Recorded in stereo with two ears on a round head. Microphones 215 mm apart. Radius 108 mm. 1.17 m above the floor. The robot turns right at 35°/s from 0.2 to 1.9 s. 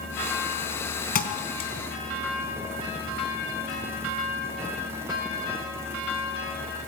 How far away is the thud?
About 3.5 m.